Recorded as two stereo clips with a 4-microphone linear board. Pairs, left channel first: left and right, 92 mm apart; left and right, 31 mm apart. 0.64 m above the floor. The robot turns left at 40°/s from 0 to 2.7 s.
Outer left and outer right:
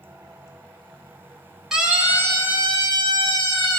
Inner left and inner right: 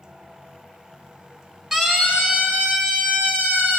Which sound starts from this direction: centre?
A siren, at 1.7 s.